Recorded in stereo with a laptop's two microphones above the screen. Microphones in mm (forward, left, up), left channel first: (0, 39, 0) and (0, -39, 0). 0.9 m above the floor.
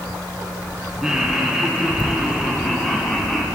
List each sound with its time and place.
1.0 s laughter: 5° right (ahead or behind), 9 m; by 3.5 s 10° left (ahead or behind), 7.5 m